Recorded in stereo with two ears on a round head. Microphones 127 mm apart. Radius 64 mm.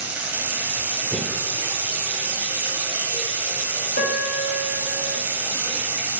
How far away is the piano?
About 1.2 m.